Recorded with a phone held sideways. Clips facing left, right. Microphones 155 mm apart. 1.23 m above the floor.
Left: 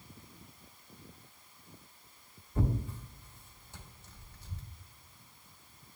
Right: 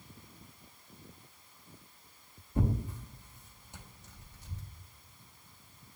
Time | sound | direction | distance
2.5 | tearing paper | 20° right (ahead or behind) | 1.4 m